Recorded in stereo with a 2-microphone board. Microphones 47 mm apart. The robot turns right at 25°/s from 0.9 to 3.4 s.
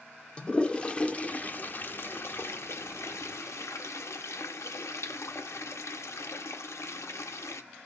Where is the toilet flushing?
25° left (ahead or behind), 0.6 m; by 7.6 s 75° left (ahead or behind), 0.6 m.